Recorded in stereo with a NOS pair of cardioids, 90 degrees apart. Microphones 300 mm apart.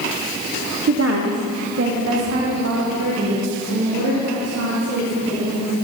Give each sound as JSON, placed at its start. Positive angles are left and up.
{"t": 0.9, "sound": "a woman speaking", "azimuth_deg": -50, "distance_m": 0.7}